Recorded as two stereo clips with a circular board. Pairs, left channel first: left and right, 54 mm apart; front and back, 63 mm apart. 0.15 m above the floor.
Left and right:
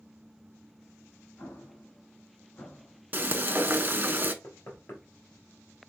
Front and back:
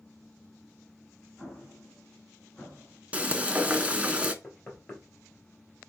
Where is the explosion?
75° left, 1.4 m.